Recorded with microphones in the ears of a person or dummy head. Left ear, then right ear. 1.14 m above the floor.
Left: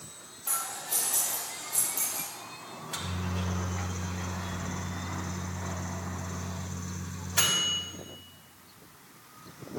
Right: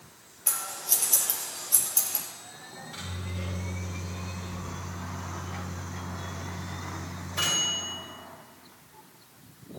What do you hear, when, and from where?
0.5 s scissors: 75° right (ahead or behind), 6 m
2.7 s a microwave: 20° left (ahead or behind), 4.5 m